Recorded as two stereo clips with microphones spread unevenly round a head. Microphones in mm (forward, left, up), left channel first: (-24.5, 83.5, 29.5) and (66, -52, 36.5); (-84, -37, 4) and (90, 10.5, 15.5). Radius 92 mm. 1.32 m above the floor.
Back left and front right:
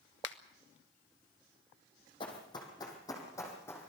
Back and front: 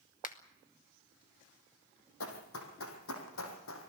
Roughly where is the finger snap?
Behind left.